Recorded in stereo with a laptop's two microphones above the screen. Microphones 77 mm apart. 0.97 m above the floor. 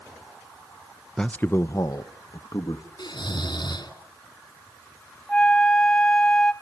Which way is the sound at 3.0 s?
65° left (ahead or behind).